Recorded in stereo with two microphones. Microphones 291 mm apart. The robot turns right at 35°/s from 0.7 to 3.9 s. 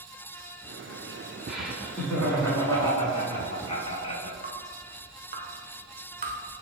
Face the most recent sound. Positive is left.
turn(degrees=-30)  # may be behind; listen again after turning